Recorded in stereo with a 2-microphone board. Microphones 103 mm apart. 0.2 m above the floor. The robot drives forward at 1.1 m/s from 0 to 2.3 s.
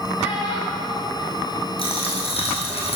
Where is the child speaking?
60° left (ahead or behind), 3.5 m; by 2.2 s 35° left (ahead or behind), 5 m.